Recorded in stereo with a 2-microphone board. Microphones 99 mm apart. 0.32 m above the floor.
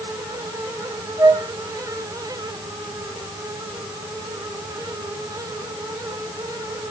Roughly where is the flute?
Right.